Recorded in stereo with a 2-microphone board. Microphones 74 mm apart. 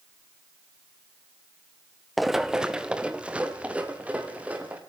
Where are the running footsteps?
Centre (ahead or behind), 1.0 m; by 4.8 s 20° right (ahead or behind), 5 m.